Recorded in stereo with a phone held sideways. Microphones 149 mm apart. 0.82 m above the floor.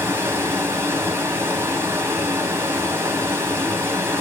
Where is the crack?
No crack in this recording.